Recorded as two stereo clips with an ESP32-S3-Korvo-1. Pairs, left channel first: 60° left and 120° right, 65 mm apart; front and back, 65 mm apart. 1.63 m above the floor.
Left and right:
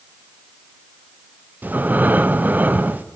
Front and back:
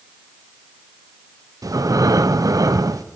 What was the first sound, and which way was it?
Breathing, straight behind.